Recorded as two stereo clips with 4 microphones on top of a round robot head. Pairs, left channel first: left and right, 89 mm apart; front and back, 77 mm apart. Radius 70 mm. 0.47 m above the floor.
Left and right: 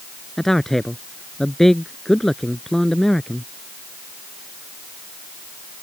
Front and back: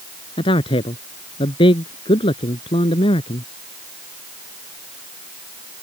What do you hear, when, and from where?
0.4 s a man speaking: 5° left